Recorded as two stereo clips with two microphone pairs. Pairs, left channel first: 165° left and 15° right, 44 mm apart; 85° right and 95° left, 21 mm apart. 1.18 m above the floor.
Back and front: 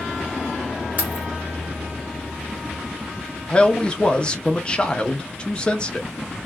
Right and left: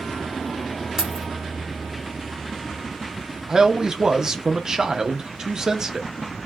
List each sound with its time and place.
1.0 s keys jangling: 35° left, 1.5 m
3.5 s a man speaking: 115° left, 0.7 m